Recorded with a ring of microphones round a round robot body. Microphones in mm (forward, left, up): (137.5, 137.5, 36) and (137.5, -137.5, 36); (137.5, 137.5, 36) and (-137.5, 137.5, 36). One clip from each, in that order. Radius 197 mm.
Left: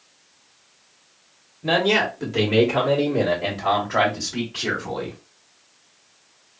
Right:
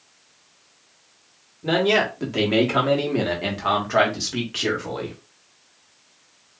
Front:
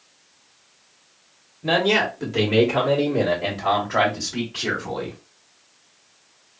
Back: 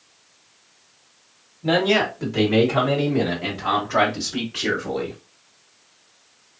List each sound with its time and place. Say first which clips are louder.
1.6 s a man speaking: even, even; 30° left, 1.0 m; by 5.2 s 110° right, 2.0 m